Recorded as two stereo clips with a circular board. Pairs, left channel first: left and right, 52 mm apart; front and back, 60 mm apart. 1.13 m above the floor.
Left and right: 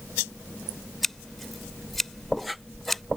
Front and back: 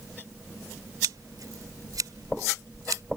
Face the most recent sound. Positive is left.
turn(degrees=175)